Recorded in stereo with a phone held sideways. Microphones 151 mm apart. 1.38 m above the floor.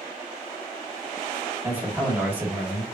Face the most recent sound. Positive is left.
turn(degrees=-10)  # may be behind; listen again after turning